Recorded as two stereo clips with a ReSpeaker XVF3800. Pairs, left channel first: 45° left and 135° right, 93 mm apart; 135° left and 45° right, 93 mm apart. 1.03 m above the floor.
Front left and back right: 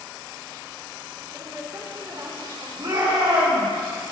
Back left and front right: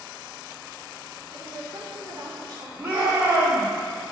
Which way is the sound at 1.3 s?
90° right.